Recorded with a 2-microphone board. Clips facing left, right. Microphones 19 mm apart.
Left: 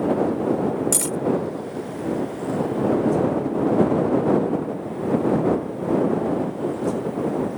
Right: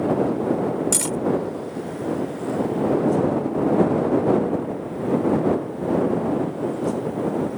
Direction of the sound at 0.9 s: 10° right (ahead or behind).